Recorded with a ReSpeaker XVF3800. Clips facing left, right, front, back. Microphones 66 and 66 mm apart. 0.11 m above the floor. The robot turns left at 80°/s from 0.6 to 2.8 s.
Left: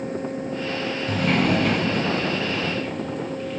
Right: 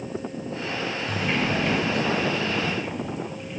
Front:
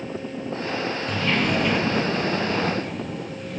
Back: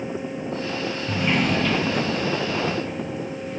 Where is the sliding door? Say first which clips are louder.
Left 5 dB, back 1 dB; 125° left, 1.3 m; by 3.6 s 15° right, 1.3 m.